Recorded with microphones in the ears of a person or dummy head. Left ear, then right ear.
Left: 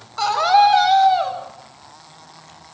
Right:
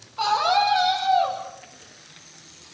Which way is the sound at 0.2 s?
65° left (ahead or behind).